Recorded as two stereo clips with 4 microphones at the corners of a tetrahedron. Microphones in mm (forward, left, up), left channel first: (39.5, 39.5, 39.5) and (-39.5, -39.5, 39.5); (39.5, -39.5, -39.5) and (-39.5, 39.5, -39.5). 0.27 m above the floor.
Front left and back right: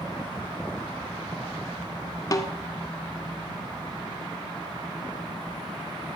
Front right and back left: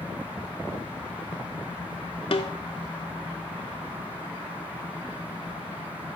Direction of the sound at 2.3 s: 10° right.